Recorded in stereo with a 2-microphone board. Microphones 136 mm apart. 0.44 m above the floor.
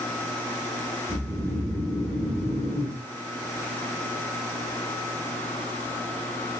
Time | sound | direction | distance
1.1 | snoring | centre (ahead or behind) | 1.7 m